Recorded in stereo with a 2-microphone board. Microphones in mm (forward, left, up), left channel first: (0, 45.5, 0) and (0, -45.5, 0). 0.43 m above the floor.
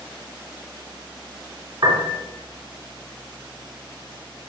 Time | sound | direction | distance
1.8 | a piano | 60° right (ahead or behind) | 2 m